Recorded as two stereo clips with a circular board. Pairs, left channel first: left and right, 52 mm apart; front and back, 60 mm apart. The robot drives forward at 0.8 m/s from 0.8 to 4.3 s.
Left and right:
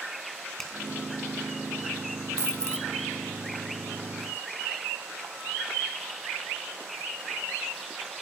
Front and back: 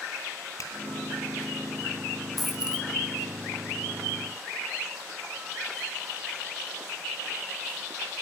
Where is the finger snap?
10° left, 3 m.